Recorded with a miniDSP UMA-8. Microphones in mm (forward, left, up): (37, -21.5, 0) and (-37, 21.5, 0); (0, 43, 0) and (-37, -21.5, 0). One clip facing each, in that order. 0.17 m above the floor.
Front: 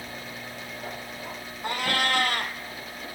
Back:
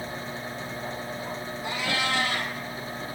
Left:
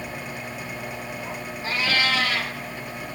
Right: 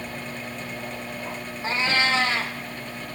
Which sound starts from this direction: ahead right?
A cat meowing, at 1.6 s.